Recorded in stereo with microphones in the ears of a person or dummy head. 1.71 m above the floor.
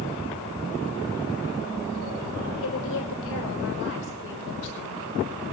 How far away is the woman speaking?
About 5.5 m.